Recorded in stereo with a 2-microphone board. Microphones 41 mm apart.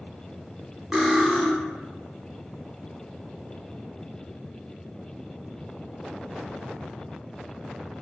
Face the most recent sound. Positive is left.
turn(degrees=-10)  # may be behind; listen again after turning